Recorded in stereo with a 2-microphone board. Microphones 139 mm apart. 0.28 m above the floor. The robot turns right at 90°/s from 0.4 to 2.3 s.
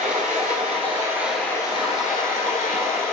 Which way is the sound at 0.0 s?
85° right.